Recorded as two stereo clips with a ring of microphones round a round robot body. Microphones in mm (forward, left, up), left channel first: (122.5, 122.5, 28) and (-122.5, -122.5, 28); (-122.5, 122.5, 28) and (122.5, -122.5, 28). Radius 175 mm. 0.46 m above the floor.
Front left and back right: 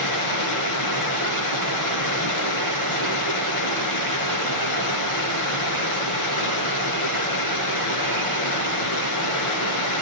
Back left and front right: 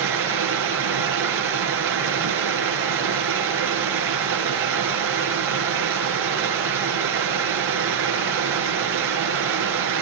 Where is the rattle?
No rattle in this recording.